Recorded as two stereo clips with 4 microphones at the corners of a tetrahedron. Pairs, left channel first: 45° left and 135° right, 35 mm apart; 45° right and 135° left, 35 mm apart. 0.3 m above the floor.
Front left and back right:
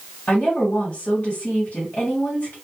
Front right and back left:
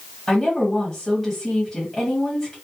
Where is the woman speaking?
30° left, 1.4 m.